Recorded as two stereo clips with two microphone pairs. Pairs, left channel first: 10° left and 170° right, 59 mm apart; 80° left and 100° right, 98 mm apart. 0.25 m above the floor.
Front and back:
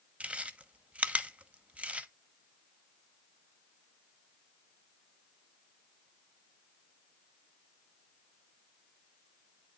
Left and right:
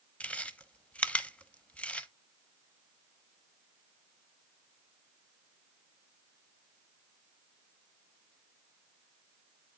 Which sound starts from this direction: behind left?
Chewing, at 0.2 s.